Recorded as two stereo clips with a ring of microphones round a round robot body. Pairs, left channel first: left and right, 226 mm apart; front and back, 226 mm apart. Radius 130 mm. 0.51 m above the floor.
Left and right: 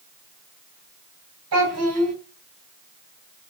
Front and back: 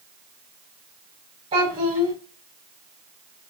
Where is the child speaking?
110° right, 3 m.